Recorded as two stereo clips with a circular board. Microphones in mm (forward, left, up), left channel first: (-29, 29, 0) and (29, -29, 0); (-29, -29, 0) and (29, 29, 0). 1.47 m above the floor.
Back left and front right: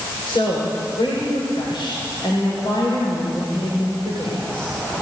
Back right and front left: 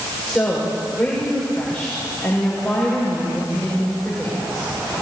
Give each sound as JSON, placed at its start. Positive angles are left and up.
{"t": 0.3, "sound": "a woman speaking", "azimuth_deg": 140, "distance_m": 6.5}